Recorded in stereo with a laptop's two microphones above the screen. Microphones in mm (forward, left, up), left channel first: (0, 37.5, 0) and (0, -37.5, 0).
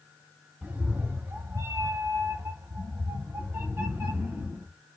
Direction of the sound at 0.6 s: 20° right (ahead or behind).